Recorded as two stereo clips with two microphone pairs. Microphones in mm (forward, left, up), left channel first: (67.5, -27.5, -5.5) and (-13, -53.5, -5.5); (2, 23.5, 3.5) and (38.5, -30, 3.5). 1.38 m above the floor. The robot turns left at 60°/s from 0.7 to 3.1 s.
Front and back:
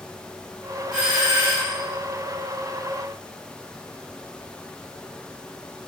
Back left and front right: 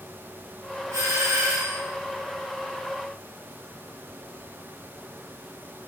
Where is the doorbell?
75° right, 3.5 m; by 1.8 s 125° right, 3.5 m.